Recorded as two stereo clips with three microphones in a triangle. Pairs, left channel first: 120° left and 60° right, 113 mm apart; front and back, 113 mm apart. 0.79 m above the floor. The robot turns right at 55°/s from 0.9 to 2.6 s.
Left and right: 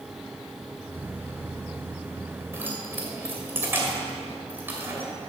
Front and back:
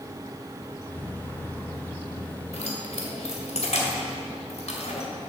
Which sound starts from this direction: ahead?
Keys jangling, at 2.5 s.